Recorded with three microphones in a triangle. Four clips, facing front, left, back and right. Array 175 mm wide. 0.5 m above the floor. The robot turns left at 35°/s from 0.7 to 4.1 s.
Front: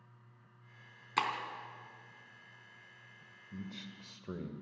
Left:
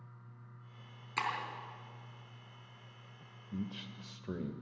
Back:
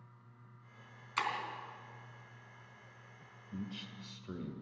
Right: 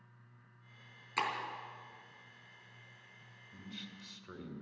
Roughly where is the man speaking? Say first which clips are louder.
Left 9 dB, back 2 dB; left.